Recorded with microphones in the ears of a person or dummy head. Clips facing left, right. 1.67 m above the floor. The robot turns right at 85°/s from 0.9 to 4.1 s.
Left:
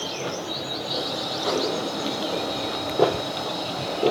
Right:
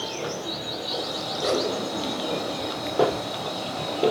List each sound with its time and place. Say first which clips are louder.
1.4 s a whoosh: right 1 dB; 80° right, 7 m; by 1.7 s 55° right (ahead or behind), 7 m